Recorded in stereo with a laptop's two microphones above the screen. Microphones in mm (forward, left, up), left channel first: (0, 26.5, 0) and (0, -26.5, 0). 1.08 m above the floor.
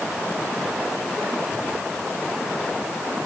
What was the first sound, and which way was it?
Only background noise.